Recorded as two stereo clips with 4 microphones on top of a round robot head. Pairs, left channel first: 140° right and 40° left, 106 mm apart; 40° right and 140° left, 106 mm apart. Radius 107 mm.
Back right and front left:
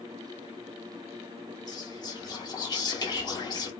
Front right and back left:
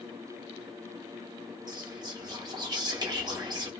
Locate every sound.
1.7 s whispering: straight behind, 1.8 m